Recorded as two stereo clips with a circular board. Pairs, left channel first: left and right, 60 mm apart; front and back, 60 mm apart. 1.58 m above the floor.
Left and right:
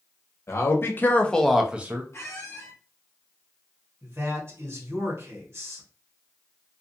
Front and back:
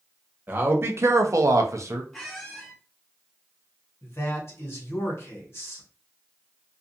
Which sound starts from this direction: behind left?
A man speaking, at 0.5 s.